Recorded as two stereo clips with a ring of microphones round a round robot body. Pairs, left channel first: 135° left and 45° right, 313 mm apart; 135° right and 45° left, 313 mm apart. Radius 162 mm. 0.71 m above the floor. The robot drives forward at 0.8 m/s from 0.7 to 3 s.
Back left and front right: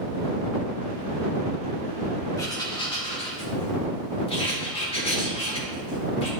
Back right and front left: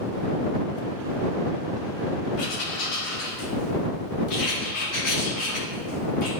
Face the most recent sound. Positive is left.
turn(degrees=-155)